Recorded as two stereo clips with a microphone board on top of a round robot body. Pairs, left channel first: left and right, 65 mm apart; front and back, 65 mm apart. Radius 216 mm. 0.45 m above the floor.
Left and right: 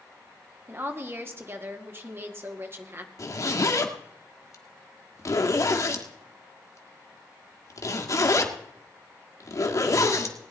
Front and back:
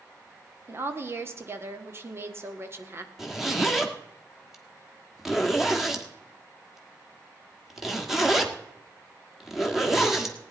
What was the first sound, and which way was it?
A woman speaking, 135° right.